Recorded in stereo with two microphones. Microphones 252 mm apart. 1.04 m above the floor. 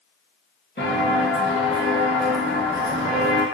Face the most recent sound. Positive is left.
turn(degrees=-25)  # may be behind; listen again after turning